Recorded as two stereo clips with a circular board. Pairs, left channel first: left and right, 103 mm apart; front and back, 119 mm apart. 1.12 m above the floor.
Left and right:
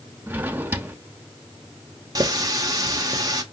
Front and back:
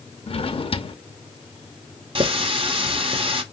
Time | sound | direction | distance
0.3 | a drawer | 20° right | 0.8 m
2.1 | a running tap | 140° right | 1.0 m